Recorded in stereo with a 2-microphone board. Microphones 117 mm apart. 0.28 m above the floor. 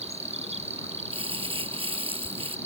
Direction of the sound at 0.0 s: 70° right (ahead or behind).